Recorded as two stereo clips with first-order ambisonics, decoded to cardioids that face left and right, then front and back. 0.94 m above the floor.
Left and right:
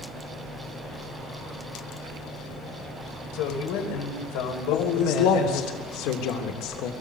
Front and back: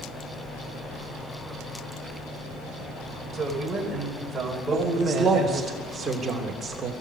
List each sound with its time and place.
3.3 s a man speaking: 100° left, 5.5 m
4.7 s a man speaking: 110° left, 3 m